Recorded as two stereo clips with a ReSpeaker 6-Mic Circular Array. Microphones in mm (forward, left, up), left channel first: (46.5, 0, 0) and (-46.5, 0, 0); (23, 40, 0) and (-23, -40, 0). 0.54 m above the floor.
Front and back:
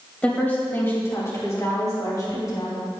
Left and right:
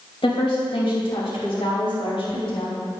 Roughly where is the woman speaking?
Left.